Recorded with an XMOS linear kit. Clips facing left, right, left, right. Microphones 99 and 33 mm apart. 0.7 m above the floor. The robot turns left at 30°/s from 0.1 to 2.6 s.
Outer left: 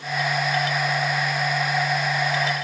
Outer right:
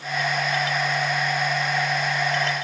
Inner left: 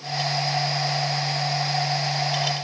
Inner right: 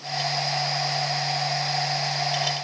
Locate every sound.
Only background noise.